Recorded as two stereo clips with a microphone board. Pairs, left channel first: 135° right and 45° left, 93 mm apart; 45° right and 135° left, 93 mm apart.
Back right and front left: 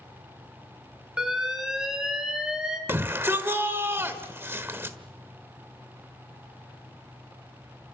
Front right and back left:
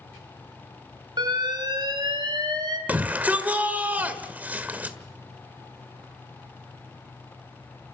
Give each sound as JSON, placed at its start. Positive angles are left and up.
{"t": 1.2, "sound": "an alarm", "azimuth_deg": 130, "distance_m": 3.0}
{"t": 2.9, "sound": "a shout", "azimuth_deg": 80, "distance_m": 1.6}